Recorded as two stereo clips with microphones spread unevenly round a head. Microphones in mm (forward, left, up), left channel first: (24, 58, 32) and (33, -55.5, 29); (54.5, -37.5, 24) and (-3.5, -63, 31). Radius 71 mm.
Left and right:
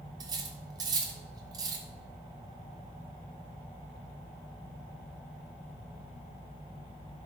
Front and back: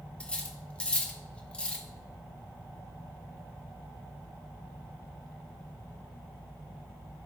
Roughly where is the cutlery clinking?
Ahead right.